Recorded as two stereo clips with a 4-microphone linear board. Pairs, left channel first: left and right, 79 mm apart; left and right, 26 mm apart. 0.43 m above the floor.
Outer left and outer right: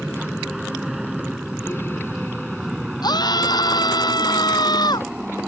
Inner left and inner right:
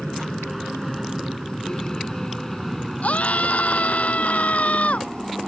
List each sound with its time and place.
0.0 s an aircraft: 5° right (ahead or behind); by 5.5 s 10° right (ahead or behind)
3.0 s a scream: 60° left (ahead or behind)